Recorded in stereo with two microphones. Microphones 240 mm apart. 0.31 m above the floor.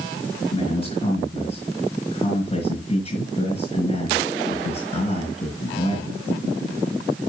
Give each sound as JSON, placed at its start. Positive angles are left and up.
{"t": 0.5, "sound": "a man speaking", "side_deg": 25, "distance_m": 4.5}